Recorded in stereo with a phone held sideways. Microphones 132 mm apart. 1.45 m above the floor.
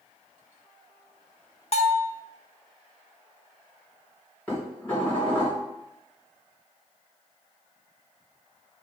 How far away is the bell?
About 0.8 m.